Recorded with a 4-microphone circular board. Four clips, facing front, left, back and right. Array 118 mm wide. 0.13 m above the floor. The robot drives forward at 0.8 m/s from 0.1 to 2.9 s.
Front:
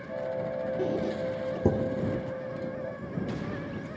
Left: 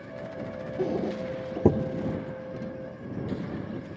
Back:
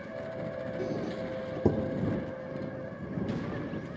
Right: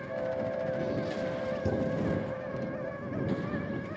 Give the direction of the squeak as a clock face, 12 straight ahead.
10 o'clock.